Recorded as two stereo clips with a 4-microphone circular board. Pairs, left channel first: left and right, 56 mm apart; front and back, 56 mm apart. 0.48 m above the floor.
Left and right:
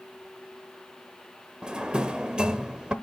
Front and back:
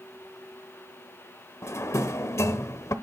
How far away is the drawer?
About 0.9 m.